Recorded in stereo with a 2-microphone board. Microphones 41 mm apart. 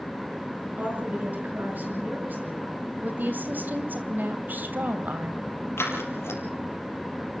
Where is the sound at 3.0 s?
50° right (ahead or behind), 2.5 m.